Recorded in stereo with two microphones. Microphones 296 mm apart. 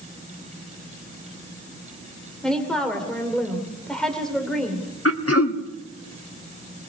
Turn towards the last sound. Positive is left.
turn(degrees=50)  # may be behind; listen again after turning